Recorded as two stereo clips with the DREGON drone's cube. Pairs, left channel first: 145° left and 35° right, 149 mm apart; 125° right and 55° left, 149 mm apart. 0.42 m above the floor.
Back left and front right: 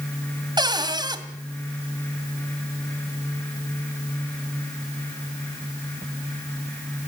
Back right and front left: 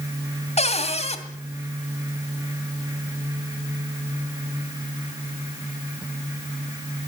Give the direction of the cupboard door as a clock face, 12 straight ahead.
3 o'clock.